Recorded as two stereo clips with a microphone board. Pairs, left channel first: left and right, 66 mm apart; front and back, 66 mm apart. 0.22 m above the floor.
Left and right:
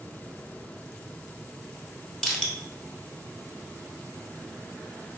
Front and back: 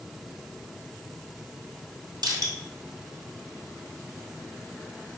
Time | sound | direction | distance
2.2 | crushing | 170° left | 1.0 m